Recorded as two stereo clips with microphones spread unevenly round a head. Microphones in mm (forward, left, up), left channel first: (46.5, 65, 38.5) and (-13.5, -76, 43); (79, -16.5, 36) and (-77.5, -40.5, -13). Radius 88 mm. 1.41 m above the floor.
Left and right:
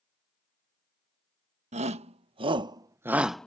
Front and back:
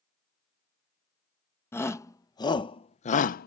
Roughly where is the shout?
Ahead right.